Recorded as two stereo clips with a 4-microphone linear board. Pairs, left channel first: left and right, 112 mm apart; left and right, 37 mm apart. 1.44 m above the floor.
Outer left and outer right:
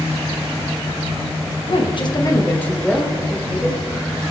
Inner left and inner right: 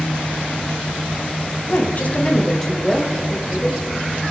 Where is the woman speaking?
55° left (ahead or behind), 1.4 m; by 3.8 s 15° right (ahead or behind), 2.5 m.